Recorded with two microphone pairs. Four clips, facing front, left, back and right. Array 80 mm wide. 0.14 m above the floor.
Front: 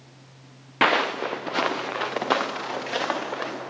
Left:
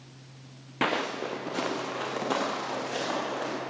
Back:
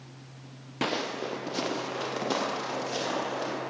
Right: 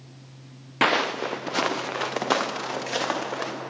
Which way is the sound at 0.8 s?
30° right.